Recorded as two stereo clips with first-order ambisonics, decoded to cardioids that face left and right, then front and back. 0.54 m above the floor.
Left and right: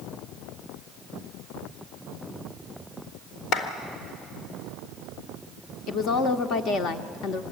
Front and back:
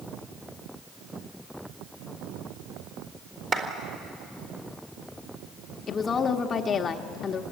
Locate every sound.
3.5 s a clap: 115° left, 1.7 m
5.9 s a woman speaking: 60° left, 0.9 m